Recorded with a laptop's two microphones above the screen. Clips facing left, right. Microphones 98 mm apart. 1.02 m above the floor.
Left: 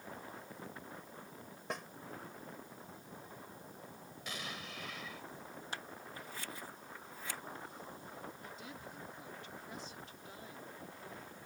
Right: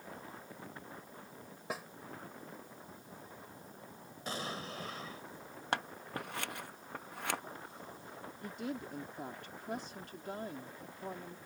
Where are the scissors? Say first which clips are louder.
Right 12 dB; 70° right (ahead or behind).